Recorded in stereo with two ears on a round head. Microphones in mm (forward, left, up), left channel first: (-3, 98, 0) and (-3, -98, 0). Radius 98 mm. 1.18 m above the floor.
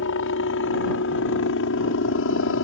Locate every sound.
0.0 s a helicopter: 60° left (ahead or behind); by 2.6 s 65° left (ahead or behind)